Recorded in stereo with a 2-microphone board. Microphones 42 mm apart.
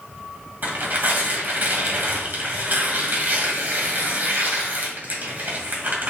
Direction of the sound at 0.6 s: 50° right (ahead or behind).